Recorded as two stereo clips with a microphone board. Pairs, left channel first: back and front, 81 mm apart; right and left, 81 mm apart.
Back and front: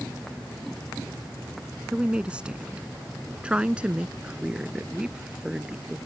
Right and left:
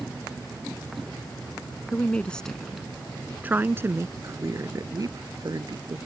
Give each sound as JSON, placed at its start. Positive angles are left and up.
{"t": 1.9, "sound": "a woman speaking", "azimuth_deg": -60}